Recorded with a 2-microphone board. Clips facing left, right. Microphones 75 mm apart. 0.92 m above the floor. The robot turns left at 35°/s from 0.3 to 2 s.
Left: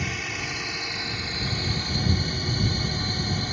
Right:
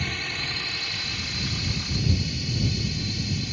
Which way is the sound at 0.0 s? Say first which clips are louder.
Left 1 dB; 170° left.